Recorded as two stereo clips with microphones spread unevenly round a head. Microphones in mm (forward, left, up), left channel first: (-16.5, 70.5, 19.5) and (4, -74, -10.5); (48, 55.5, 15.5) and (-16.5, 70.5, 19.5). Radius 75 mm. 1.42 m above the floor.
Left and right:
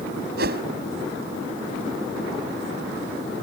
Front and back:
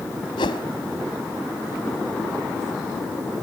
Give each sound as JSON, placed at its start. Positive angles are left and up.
{"t": 0.4, "sound": "a whoosh", "azimuth_deg": -55}